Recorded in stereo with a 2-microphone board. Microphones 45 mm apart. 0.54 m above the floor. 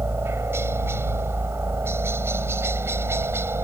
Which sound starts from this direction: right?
A helicopter, at 0.0 s.